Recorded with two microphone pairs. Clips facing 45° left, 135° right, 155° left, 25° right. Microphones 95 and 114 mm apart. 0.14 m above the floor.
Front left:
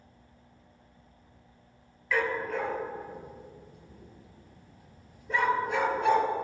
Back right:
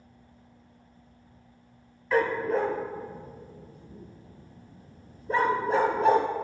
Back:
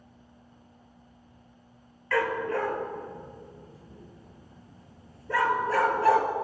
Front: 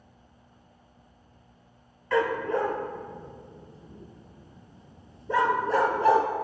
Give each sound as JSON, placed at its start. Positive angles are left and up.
{"t": 2.1, "sound": "a dog barking", "azimuth_deg": -90, "distance_m": 0.8}